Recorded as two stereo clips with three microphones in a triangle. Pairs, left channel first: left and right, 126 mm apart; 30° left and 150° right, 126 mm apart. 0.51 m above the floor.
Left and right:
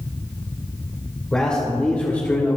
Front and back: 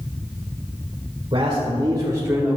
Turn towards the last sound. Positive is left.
turn(degrees=140)